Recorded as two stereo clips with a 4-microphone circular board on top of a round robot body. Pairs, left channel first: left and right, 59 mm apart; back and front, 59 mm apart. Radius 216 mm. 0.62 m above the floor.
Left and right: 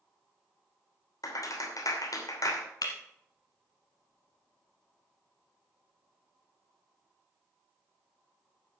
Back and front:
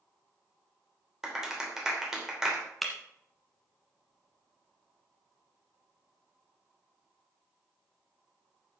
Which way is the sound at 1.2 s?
80° left.